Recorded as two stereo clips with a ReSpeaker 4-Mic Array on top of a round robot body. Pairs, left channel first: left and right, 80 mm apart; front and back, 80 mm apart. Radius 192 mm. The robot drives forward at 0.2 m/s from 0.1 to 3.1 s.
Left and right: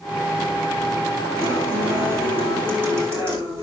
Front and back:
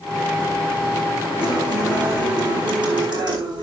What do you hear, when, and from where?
1.4 s a guitar: 150° right, 7 m